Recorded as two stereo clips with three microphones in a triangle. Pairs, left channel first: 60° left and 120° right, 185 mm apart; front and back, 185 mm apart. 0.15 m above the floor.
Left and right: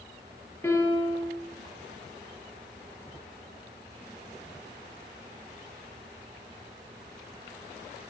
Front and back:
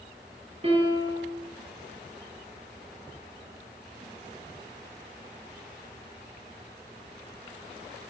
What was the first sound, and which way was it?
A piano, 135° left.